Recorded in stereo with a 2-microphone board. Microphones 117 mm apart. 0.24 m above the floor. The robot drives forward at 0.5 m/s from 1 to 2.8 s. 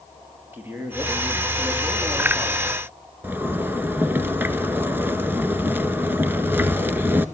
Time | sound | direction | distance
0.5 | a man speaking | 15° right (ahead or behind) | 5.5 m
3.2 | a zipper | 20° right (ahead or behind) | 1.2 m